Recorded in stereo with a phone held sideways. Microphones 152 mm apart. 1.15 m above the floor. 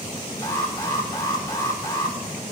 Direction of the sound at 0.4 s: 25° left (ahead or behind).